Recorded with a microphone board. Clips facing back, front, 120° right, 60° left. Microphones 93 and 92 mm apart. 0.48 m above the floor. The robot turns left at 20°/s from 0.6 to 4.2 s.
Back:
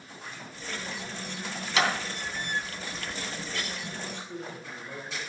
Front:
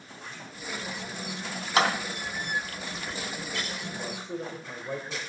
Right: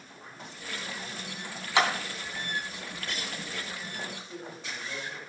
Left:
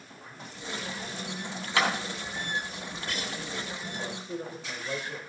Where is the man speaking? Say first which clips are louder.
Front 3 dB, left 4 dB; 30° left, 2 m; by 5.2 s 25° left, 2 m.